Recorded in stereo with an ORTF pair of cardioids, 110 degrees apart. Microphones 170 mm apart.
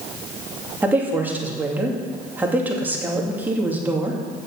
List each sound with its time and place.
0.8 s a woman speaking: 10° right, 2.5 m